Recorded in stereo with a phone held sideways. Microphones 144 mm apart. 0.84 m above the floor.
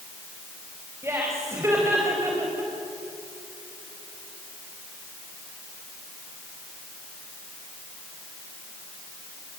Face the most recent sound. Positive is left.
turn(degrees=-20)  # may be behind; listen again after turning